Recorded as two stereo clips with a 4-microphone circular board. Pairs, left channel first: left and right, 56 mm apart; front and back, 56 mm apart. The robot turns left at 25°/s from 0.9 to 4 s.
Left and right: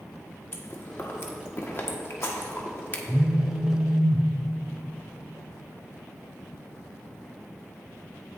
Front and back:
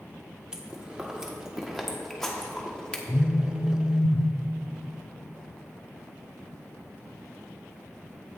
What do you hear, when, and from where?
0.5 s chewing: 115° left, 1.3 m; by 3.0 s 60° left, 1.3 m
3.1 s a phone buzzing: 30° right, 0.6 m; by 4.3 s 55° right, 0.6 m